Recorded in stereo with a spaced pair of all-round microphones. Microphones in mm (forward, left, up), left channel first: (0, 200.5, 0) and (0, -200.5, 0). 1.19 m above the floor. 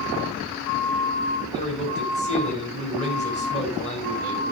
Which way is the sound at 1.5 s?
15° left (ahead or behind).